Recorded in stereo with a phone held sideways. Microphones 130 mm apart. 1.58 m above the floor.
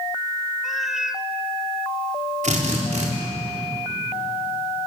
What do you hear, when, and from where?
0.6 s a cat meowing: 5° right (ahead or behind), 1.0 m
2.4 s a drill: 65° right (ahead or behind), 5 m